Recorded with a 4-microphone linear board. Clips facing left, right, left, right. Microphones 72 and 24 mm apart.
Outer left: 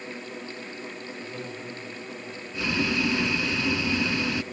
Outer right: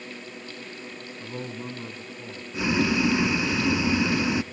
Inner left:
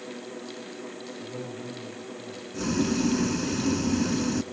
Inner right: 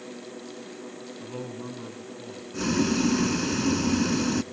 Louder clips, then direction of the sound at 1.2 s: Outer right 5 dB, inner right 2 dB; 50° right (ahead or behind).